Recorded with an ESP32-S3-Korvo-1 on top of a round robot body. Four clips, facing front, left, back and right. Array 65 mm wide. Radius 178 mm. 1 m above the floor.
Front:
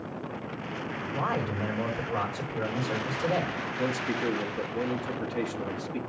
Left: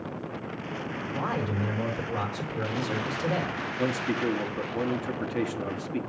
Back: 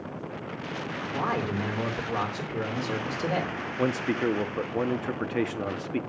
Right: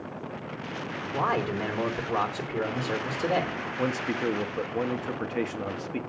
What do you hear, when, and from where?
1.1 s a man speaking: 125° right, 2.5 m
3.8 s a man speaking: 160° right, 1.1 m